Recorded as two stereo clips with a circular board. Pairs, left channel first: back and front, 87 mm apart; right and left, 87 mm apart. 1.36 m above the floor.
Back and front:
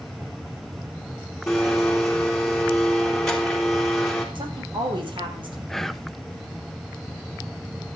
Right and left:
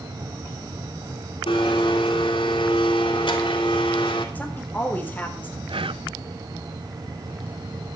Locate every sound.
1.5 s a blender: 95° right, 3.5 m
4.3 s a woman speaking: 20° right, 4 m
5.7 s whispering: 95° left, 0.7 m